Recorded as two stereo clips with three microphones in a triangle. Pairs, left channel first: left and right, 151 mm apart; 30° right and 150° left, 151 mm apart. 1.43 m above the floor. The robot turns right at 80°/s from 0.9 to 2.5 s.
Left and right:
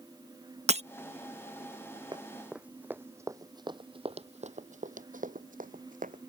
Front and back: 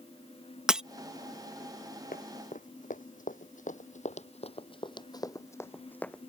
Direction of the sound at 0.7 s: 125° right.